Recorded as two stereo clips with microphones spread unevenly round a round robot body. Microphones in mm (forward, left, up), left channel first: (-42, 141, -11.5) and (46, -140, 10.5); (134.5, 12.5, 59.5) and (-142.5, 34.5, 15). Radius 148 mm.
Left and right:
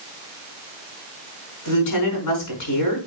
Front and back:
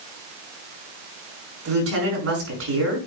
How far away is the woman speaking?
About 4.5 m.